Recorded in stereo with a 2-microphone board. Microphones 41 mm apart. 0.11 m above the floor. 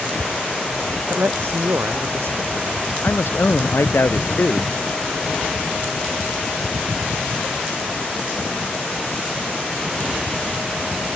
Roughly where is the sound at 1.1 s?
Right.